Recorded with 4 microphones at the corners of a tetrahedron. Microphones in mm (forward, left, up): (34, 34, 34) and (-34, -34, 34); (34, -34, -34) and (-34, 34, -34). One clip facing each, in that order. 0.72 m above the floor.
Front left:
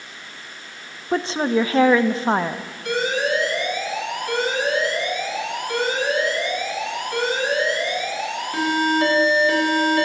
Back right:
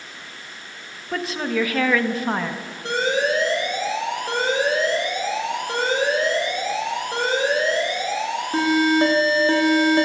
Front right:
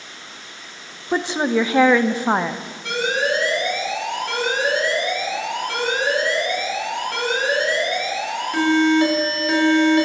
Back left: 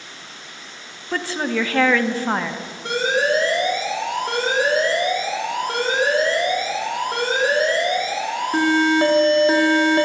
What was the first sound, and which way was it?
A woman speaking, 10° left.